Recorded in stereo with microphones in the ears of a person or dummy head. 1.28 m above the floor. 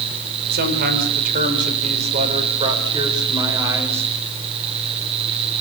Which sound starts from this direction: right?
A man speaking, at 0.5 s.